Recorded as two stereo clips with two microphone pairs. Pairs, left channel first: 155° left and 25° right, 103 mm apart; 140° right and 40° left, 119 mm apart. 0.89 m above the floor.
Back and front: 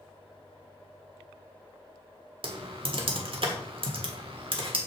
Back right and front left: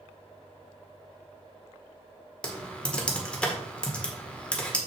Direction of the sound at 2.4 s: 55° right.